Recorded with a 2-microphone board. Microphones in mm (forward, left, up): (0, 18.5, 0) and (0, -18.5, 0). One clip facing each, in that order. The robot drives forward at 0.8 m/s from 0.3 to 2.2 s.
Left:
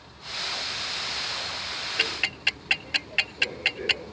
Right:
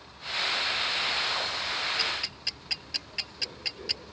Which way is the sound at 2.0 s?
55° left (ahead or behind).